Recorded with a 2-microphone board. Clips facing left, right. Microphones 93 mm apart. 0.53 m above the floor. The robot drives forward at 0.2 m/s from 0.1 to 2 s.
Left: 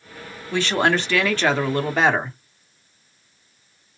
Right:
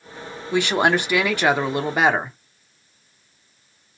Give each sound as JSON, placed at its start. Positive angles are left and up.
{"t": 0.5, "sound": "a woman speaking", "side_deg": -15, "distance_m": 0.6}